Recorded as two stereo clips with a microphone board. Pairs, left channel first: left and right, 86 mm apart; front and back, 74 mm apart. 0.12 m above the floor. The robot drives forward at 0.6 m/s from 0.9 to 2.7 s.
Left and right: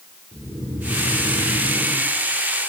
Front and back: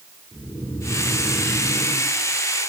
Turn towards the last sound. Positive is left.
turn(degrees=-45)